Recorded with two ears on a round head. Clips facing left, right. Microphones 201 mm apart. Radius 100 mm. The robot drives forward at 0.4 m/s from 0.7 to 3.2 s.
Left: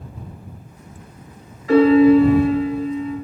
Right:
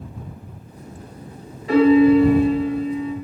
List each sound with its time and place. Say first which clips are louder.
1.7 s a piano: left 1 dB; 30° right (ahead or behind), 1.3 m; by 3.1 s 45° right (ahead or behind), 0.8 m